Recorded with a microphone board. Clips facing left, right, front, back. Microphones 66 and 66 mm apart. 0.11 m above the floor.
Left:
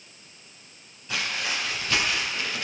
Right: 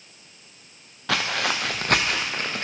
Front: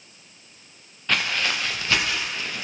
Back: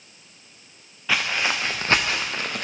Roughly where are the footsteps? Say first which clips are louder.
Right 5 dB, back 1 dB; right.